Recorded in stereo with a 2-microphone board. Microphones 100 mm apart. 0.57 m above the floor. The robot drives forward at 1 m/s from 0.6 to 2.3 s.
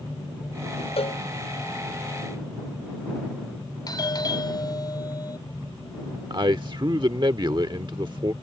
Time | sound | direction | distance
1.0 | a cowbell | 75° left (ahead or behind) | ?
3.9 | a doorbell | 45° left (ahead or behind) | ?
6.3 | a man speaking | 50° right (ahead or behind) | ?